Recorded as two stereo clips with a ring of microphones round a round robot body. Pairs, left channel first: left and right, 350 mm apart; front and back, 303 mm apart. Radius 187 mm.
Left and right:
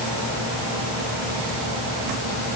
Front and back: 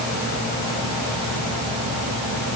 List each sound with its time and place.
Only background noise.